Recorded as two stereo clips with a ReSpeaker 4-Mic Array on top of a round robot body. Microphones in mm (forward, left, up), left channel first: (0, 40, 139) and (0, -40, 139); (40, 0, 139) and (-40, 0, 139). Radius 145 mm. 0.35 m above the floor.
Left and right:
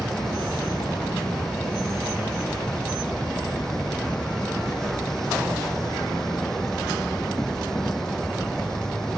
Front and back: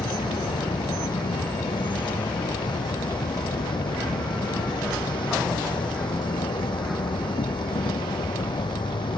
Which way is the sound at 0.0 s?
5° left.